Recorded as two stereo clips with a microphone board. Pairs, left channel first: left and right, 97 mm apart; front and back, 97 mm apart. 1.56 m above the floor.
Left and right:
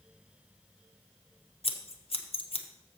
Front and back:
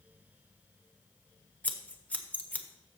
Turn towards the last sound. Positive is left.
turn(degrees=75)